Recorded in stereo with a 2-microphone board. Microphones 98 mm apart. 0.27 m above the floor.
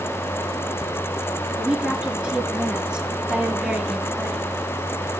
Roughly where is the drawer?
I don't hear a drawer.